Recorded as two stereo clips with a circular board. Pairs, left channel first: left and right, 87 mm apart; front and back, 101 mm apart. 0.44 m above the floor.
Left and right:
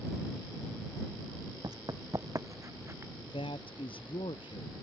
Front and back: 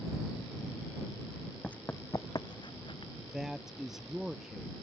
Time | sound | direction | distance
1.6 | running footsteps | 80° right | ?
3.2 | a man speaking | 95° left | ?